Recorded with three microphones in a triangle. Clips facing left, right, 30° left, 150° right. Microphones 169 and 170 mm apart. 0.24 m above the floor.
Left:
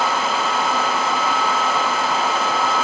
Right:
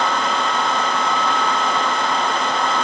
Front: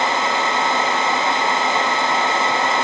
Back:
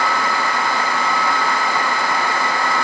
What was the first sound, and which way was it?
Only background noise.